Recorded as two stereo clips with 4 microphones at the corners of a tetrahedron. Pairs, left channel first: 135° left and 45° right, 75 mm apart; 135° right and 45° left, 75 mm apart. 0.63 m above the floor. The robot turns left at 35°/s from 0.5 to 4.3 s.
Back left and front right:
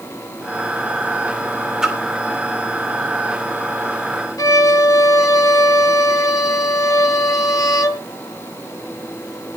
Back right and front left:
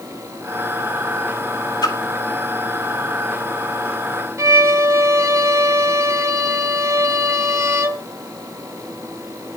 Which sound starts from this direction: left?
A violin, at 4.4 s.